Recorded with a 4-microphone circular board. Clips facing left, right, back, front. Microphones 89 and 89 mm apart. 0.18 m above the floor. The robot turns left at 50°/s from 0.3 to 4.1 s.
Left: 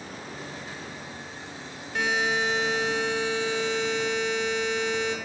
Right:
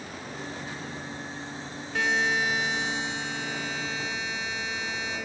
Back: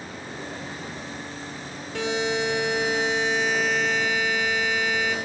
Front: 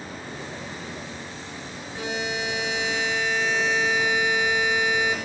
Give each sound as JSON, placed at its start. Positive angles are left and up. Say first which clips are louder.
{"t": 1.9, "sound": "a buzzer", "louder": "even, back 4 dB", "azimuth_deg": 175, "distance_m": 5.0}